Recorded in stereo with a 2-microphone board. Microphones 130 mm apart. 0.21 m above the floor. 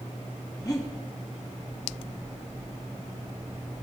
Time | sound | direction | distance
0.6 | breathing | 30° left (ahead or behind) | 1.5 m